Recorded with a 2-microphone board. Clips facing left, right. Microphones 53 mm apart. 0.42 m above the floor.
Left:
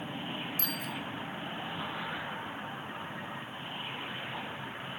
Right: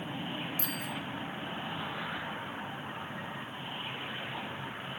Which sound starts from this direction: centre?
A bicycle bell, at 0.6 s.